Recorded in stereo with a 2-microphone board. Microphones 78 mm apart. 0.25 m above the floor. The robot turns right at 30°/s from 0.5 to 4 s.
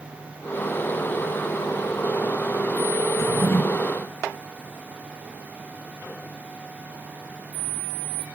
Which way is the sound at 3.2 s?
40° left (ahead or behind).